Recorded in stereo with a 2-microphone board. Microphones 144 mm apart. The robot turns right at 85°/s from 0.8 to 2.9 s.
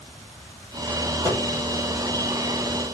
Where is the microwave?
25° right (ahead or behind), 4 m; by 1.4 s 40° right (ahead or behind), 4 m.